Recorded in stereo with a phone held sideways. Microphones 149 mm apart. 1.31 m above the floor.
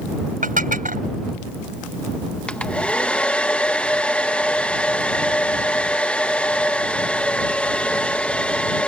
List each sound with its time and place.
0.4 s dishes clattering: 65° right (ahead or behind)
2.5 s a hair dryer: 10° left (ahead or behind)